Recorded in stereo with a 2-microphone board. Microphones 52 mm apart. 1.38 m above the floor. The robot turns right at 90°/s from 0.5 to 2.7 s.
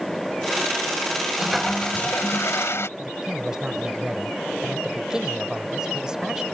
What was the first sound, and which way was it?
A toilet flushing, 15° right.